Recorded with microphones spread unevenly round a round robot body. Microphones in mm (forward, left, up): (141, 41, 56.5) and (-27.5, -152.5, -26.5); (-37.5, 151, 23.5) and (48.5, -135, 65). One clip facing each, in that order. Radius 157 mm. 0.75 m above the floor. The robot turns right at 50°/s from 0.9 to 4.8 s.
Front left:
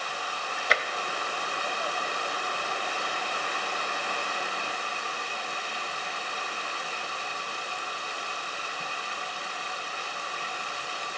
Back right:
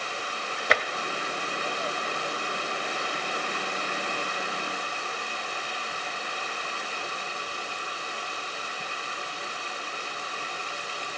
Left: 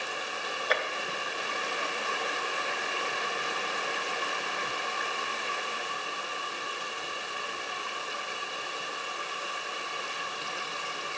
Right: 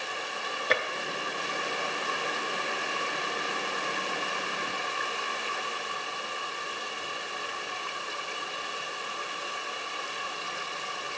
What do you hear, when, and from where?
0.7 s tapping: 105° right, 0.6 m